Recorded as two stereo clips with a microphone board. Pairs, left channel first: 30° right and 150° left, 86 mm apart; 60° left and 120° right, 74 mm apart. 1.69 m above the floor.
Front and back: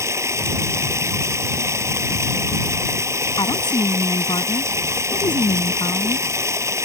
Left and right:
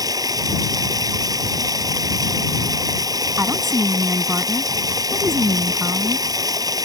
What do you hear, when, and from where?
0.0 s running water: 155° right
3.4 s a woman speaking: 60° right